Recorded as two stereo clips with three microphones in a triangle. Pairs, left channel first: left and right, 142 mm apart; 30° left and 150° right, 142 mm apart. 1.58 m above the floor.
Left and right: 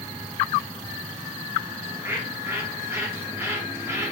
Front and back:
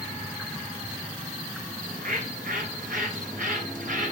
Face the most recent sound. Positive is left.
turn(degrees=-165)